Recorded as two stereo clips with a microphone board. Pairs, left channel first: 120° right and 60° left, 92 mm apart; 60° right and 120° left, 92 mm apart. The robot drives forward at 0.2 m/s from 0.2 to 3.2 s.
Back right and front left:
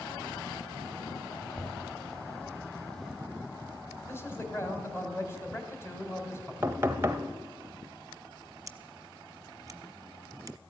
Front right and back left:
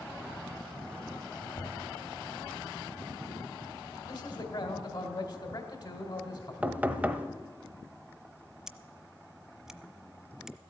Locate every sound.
1.5 s knocking: 50° right, 1.2 m; by 1.9 s 55° right, 1.2 m
4.1 s a man speaking: 65° right, 2 m
6.6 s knocking: 70° left, 0.8 m
8.7 s scissors: 40° left, 0.6 m